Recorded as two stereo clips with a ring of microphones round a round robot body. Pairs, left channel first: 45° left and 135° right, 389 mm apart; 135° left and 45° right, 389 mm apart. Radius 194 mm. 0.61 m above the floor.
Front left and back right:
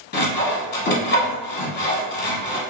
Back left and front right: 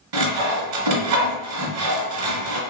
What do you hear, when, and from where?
0.1 s sawing: 15° right, 0.9 m